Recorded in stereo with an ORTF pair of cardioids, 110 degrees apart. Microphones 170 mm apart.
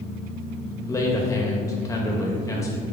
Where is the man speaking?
20° left, 1.6 m.